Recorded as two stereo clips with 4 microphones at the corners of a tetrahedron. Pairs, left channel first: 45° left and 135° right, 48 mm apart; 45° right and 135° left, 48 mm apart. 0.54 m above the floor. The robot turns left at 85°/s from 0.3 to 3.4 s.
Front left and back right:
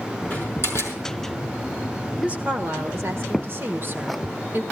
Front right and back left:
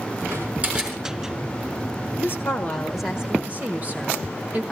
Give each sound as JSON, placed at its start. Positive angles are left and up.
{"t": 0.3, "sound": "a door slam", "azimuth_deg": 105, "distance_m": 5.0}
{"t": 2.2, "sound": "a woman speaking", "azimuth_deg": -65, "distance_m": 1.7}